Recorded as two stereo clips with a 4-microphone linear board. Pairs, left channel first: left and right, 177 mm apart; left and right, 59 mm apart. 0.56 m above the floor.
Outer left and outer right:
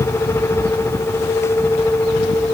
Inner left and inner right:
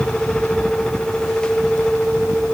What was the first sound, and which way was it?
Only background noise.